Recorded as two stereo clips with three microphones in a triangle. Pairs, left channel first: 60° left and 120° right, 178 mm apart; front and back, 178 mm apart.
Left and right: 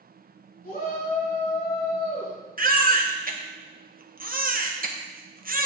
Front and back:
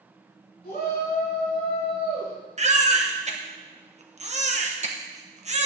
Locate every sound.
0.6 s a shout: 25° left, 4 m
2.6 s a baby crying: 140° right, 1.0 m